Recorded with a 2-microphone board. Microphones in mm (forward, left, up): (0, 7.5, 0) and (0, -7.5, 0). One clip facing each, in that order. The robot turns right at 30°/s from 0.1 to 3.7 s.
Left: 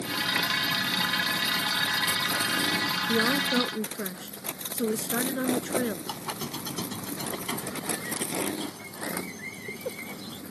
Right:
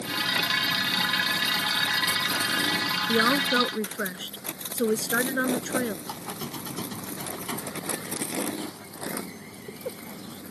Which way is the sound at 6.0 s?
65° left (ahead or behind).